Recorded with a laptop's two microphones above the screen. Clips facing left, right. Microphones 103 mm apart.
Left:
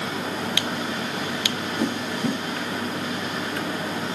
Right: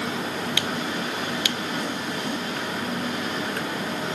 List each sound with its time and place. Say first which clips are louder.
1.8 s a whoosh: left 3 dB; 80° left, 6 m